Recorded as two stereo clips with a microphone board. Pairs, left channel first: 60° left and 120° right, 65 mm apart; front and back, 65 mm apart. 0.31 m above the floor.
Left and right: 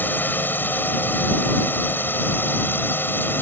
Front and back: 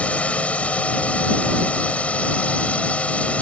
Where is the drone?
50° left.